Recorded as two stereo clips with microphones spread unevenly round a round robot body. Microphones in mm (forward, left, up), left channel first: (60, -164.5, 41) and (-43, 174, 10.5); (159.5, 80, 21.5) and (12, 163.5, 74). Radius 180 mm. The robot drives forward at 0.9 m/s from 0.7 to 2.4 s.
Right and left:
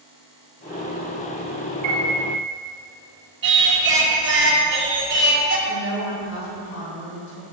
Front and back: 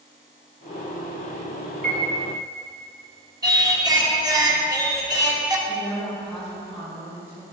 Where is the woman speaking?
115° right, 2 m.